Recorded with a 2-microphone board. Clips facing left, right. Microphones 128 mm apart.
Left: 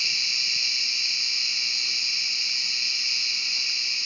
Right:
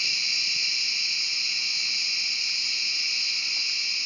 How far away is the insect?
About 1.8 m.